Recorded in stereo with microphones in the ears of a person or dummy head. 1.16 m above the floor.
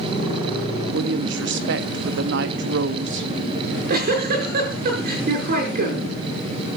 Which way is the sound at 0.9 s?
55° right (ahead or behind).